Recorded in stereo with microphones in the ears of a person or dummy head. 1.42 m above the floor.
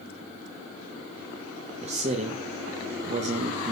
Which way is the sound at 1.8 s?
30° right (ahead or behind).